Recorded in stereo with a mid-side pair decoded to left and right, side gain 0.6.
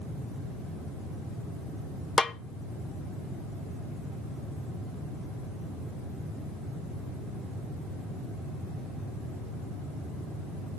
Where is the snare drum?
30° left, 0.8 m.